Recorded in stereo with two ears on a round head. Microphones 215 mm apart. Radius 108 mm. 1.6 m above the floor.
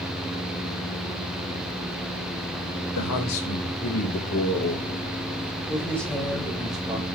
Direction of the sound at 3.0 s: 85° left.